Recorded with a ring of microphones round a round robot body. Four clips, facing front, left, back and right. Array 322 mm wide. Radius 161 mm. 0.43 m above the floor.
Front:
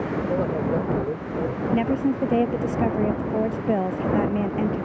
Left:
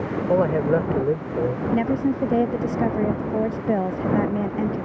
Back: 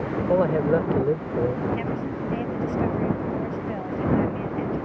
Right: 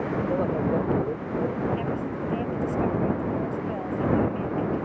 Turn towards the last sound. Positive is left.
turn(degrees=50)